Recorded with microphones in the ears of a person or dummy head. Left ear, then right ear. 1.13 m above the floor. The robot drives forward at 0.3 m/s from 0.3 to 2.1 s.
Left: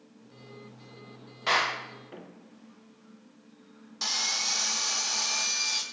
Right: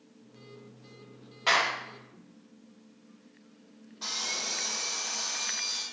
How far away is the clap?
About 2.0 m.